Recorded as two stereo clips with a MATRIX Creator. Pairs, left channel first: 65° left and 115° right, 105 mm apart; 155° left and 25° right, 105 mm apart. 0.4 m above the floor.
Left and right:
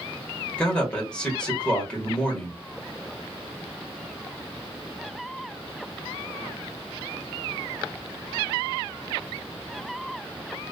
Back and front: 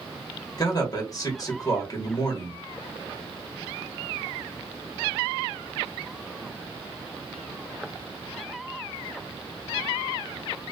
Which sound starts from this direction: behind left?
A man speaking, at 0.6 s.